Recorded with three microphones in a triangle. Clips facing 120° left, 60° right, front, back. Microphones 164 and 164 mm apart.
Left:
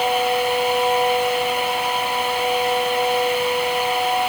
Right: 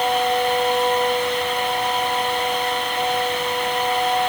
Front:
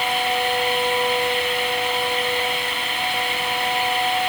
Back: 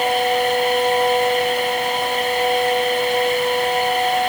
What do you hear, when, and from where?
Only background noise.